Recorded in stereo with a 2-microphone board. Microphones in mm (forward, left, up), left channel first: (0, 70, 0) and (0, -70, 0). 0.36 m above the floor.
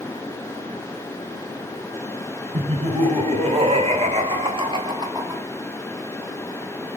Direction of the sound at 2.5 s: 50° right (ahead or behind).